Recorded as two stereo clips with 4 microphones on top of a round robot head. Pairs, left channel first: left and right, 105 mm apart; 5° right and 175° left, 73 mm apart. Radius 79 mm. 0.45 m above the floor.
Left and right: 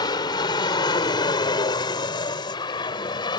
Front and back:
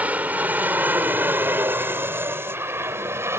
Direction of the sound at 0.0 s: 115° left.